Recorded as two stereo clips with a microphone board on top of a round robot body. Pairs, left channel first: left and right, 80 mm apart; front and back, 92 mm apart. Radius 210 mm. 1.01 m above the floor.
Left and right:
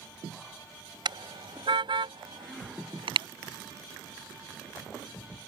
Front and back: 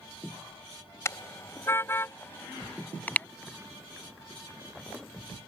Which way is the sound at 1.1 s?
60° right.